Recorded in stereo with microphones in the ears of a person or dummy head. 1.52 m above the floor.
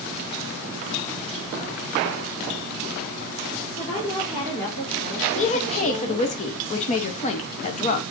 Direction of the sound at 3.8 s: 45° left (ahead or behind).